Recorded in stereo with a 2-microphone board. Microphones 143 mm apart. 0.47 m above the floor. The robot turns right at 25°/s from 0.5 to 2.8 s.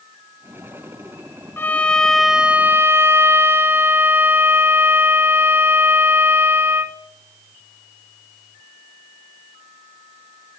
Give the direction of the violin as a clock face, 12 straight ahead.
7 o'clock.